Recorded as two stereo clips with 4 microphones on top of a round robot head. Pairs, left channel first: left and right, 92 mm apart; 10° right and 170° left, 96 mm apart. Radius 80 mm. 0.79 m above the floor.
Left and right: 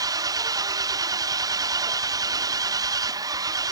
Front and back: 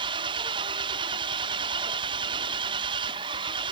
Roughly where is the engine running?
Behind right.